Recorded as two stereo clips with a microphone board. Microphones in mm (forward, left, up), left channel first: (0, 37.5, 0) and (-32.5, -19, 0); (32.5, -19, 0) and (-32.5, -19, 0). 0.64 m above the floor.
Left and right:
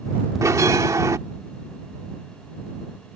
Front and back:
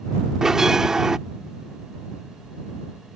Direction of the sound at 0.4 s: 100° right.